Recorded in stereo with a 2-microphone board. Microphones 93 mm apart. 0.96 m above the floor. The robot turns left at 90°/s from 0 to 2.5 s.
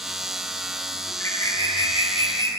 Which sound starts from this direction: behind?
A bird, at 1.1 s.